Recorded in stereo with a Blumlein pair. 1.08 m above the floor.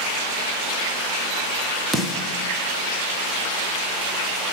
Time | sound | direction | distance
1.9 | a snare drum | 10° right | 1.2 m